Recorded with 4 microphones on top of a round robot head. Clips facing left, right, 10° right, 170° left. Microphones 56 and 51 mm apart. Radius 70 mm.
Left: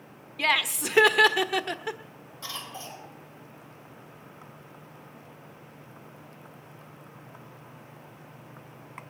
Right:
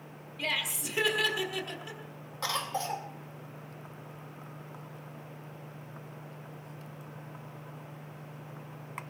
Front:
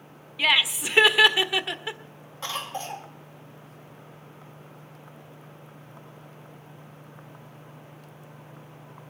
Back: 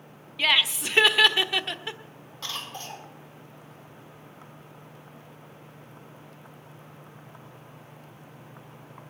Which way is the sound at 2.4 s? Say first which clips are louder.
Right 7 dB, front 4 dB; 80° right.